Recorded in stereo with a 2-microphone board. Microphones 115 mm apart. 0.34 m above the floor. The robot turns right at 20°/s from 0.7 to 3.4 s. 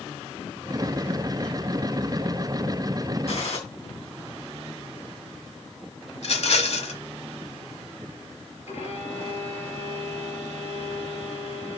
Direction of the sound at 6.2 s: 70° left (ahead or behind).